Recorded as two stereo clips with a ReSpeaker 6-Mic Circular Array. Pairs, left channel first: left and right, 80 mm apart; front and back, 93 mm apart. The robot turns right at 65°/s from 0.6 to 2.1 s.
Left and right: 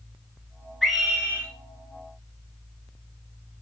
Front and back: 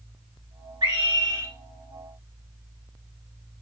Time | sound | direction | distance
0.8 | a scream | straight behind | 2.5 m